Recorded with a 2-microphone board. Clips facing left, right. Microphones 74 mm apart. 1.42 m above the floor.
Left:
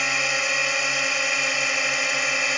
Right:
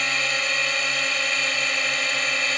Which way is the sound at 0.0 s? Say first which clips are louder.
Left 1 dB; 10° left (ahead or behind).